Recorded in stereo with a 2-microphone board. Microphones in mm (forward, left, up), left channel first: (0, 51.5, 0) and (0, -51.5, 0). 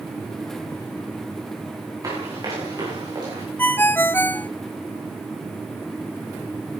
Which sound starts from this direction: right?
Running footsteps, at 2.0 s.